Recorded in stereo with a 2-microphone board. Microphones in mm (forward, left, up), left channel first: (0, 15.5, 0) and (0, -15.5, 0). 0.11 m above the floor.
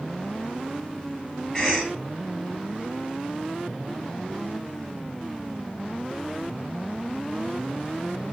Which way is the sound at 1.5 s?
20° left (ahead or behind).